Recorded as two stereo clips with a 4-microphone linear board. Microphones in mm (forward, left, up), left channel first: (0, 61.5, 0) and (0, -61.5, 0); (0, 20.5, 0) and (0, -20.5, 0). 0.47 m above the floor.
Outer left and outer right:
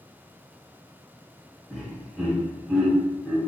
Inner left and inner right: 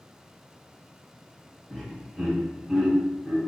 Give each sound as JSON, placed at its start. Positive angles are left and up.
{"t": 1.7, "sound": "laughter", "side_deg": -5, "distance_m": 1.1}